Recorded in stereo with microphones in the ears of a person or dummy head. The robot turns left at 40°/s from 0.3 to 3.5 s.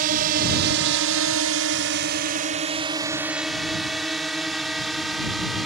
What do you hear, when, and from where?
0.0 s a drone: 45° right (ahead or behind); by 5.7 s centre (ahead or behind)